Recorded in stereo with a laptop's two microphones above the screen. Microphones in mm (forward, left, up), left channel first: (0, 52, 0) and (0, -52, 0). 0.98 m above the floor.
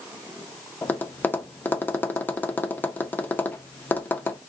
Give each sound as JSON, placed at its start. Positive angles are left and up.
{"t": 0.8, "sound": "tapping", "side_deg": 15, "distance_m": 0.6}